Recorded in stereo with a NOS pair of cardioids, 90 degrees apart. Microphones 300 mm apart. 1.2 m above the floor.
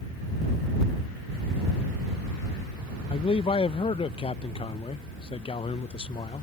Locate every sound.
3.1 s a man speaking: 20° left